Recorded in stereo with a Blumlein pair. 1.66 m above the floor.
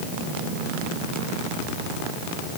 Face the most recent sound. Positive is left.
No sound to turn to.